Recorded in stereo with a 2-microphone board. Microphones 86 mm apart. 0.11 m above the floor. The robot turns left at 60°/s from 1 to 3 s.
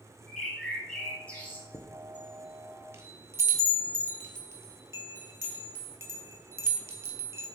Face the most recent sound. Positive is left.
turn(degrees=-35)  # may be behind; listen again after turning